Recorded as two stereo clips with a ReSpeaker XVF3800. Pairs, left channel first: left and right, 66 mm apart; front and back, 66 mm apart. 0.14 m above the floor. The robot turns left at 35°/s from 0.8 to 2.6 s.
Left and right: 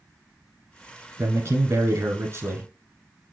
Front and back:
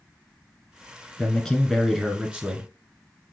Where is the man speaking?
70° right, 1.5 m; by 2.7 s 120° right, 1.5 m.